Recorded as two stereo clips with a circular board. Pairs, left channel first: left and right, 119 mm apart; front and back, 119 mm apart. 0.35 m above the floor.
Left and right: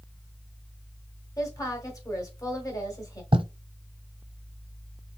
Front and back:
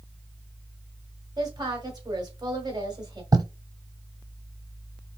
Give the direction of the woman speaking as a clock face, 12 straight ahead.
7 o'clock.